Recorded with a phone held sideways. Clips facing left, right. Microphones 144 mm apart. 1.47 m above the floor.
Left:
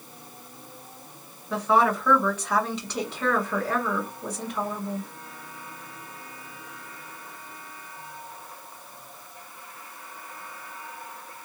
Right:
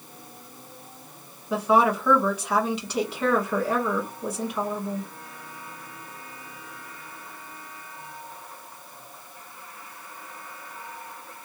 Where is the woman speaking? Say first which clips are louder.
Right 1 dB; 5° right (ahead or behind), 1.6 m.